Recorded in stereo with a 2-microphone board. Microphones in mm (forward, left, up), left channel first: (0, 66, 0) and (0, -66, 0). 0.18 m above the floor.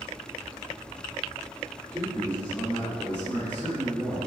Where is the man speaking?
10° left (ahead or behind), 1.7 m.